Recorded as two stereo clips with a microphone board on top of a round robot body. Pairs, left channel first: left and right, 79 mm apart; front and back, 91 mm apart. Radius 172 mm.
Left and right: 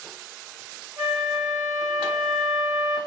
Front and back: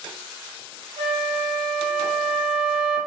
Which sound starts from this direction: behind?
A flute, at 1.0 s.